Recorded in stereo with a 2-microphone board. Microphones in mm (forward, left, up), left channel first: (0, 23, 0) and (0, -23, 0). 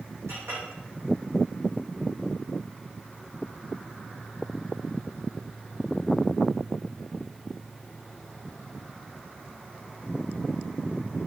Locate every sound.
0.3 s a clink: 65° right (ahead or behind), 8.5 m